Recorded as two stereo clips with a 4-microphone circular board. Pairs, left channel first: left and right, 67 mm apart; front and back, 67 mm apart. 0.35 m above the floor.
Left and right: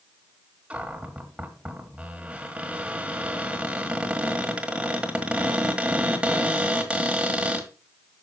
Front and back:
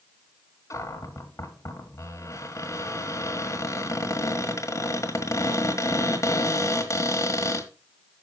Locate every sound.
0.7 s a cupboard door: 20° right, 1.5 m